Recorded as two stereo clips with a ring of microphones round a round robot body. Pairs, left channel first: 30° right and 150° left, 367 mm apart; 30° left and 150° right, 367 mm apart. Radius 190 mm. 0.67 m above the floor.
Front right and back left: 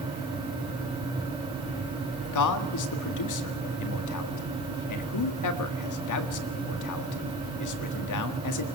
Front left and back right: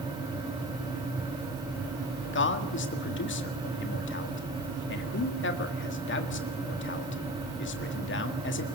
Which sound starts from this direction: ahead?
A man speaking, at 2.3 s.